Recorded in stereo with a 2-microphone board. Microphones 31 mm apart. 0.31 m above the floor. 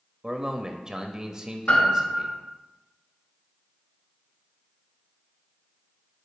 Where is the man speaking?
25° right (ahead or behind), 0.9 m.